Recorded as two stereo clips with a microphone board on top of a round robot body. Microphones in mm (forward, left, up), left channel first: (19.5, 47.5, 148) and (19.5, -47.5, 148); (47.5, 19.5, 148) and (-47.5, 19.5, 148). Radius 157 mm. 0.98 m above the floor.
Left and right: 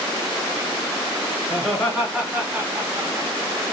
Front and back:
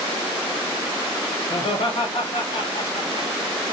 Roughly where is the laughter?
Ahead.